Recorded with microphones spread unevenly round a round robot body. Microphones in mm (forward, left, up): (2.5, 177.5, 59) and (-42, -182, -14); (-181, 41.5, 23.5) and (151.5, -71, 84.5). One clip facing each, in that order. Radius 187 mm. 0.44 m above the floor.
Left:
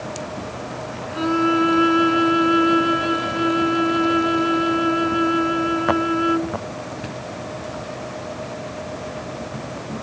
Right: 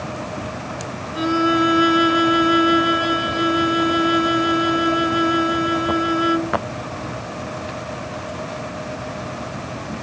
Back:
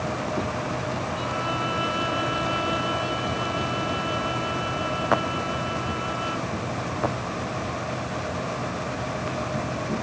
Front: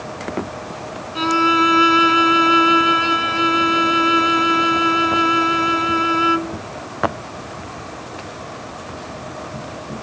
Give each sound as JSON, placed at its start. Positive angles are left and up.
{"t": 1.1, "sound": "a violin", "azimuth_deg": -30}